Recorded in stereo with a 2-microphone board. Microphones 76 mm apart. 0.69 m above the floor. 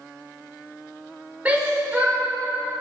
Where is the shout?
20° right (ahead or behind), 2 m.